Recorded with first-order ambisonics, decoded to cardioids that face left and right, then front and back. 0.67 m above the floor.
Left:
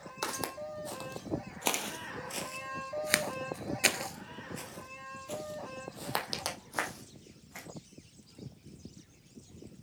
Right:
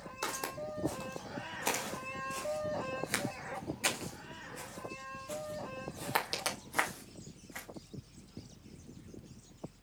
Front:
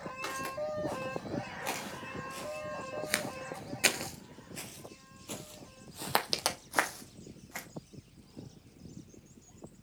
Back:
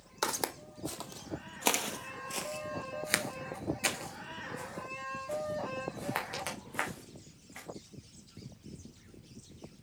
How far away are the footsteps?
About 1.8 m.